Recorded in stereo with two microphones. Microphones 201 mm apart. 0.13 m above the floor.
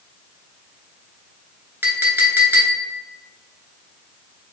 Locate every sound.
1.8 s a clink: 10° right (ahead or behind), 1.1 m